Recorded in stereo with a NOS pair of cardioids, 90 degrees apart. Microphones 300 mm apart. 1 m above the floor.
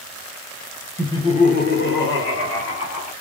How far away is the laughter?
About 0.8 m.